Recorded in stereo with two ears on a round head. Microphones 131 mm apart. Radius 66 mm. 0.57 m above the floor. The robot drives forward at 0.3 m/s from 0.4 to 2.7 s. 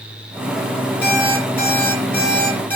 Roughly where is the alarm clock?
Centre.